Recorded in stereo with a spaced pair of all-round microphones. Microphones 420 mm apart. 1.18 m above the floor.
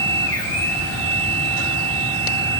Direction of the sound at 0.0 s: 10° left (ahead or behind).